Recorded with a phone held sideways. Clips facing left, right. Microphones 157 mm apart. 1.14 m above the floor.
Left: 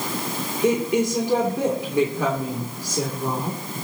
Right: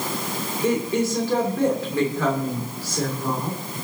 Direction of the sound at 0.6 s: 15° left (ahead or behind).